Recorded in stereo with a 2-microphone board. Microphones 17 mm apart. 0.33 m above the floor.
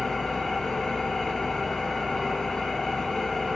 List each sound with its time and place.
0.0 s an engine running: 30° left (ahead or behind), 1.6 m